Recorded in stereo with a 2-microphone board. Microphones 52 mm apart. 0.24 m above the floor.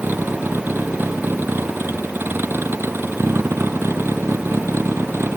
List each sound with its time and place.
0.0 s a vehicle: 40° right (ahead or behind); by 5.4 s 55° right (ahead or behind)